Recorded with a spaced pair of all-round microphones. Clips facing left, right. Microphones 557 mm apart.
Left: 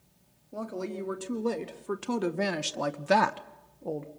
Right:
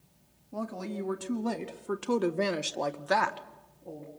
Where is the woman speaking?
20° right (ahead or behind), 1.8 m; by 4.1 s 75° left (ahead or behind), 0.9 m.